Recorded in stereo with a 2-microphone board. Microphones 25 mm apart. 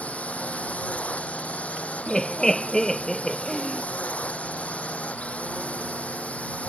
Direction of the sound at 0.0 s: 75° left (ahead or behind).